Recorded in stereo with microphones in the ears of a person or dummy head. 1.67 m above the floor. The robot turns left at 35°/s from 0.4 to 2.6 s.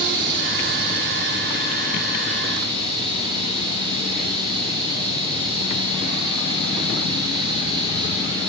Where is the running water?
75° right, 5 m; by 8.5 s 150° right, 5 m.